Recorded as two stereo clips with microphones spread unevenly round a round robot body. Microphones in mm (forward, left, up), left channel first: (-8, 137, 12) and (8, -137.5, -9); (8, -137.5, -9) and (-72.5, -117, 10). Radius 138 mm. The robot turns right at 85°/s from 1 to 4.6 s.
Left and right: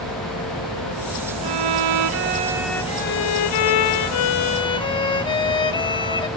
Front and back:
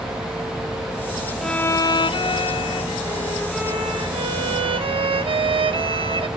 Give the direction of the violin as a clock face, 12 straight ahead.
3 o'clock.